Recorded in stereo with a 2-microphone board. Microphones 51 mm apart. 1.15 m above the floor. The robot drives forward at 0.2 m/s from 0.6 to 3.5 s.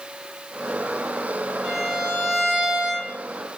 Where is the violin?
5° right (ahead or behind), 1.7 m.